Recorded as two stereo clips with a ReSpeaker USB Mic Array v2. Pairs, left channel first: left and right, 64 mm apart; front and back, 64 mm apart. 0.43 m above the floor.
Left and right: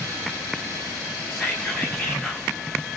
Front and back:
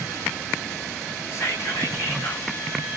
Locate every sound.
1.3 s whispering: 15° left, 1.9 m